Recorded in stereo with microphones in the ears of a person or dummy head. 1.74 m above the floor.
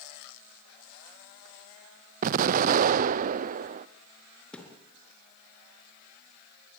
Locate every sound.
2.2 s an explosion: 45° right (ahead or behind), 0.6 m
4.5 s a thud: 5° left (ahead or behind), 4 m